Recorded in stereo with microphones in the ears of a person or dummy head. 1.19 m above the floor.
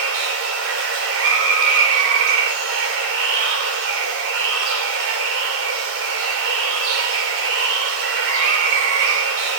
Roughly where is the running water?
Right.